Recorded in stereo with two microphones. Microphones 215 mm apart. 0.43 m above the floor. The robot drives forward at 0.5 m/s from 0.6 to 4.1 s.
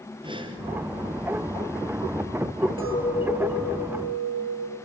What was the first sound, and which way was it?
Breathing, 20° right (ahead or behind).